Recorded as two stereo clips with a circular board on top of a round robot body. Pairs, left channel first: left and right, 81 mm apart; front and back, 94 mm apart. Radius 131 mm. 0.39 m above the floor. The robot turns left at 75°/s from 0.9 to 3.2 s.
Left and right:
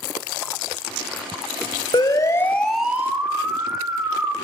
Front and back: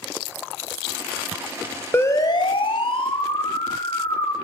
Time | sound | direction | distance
1.9 | a siren | 65° left | 3.5 m